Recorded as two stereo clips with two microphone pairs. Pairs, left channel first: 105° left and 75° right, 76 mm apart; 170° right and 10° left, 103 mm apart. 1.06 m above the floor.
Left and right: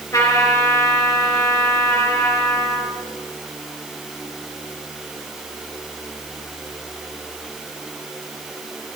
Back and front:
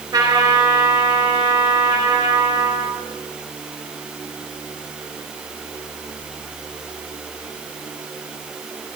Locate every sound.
0.1 s a trumpet: 65° left, 4.5 m